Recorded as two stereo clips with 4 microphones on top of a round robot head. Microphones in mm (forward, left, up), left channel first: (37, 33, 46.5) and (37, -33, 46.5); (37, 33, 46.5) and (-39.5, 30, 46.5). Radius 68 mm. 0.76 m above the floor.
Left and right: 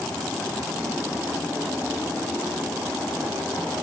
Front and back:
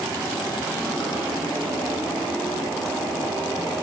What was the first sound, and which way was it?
Only background noise.